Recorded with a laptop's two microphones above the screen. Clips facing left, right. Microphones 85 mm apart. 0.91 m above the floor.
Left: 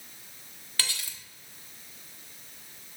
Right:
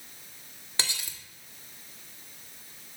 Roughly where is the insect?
I don't hear an insect.